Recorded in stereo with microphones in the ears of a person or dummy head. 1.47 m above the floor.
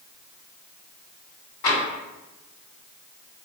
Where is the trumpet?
No trumpet in this recording.